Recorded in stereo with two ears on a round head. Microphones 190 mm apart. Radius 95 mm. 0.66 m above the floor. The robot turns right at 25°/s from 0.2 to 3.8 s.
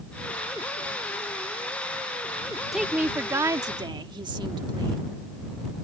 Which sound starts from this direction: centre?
A woman speaking, at 2.7 s.